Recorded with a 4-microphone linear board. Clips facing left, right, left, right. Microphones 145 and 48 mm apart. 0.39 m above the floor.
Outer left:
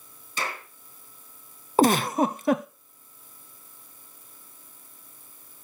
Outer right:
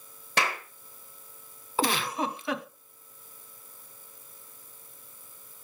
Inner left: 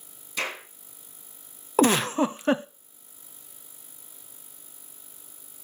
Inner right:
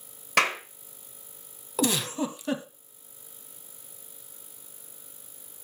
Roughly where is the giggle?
Left.